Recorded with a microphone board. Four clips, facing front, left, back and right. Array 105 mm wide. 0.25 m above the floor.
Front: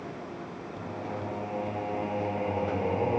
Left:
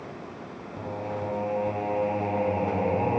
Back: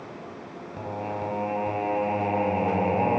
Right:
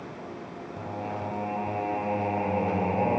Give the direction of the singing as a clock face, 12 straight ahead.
6 o'clock.